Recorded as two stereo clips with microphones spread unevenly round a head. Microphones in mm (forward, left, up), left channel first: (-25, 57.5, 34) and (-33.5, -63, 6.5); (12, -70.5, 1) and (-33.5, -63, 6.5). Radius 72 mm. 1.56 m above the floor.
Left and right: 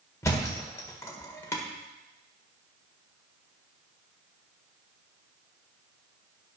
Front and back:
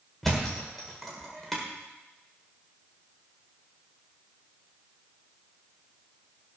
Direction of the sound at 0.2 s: 85° left.